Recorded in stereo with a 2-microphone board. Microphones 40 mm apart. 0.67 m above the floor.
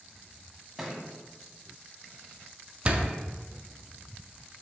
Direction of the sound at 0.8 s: 10° right (ahead or behind).